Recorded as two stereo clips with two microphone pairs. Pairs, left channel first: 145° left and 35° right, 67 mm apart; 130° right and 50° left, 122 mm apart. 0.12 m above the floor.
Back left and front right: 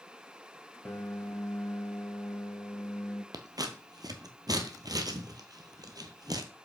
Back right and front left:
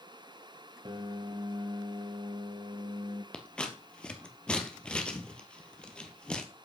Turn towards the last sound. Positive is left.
turn(degrees=-50)